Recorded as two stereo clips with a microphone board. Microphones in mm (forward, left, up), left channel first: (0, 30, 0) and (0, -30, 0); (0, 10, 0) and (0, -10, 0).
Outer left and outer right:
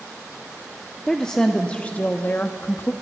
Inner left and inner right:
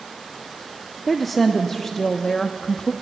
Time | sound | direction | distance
1.1 | a woman speaking | 10° left (ahead or behind) | 1.3 m